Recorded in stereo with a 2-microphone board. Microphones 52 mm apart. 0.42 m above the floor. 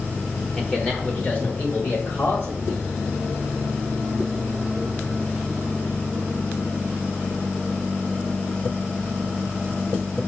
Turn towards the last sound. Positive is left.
turn(degrees=55)  # may be behind; listen again after turning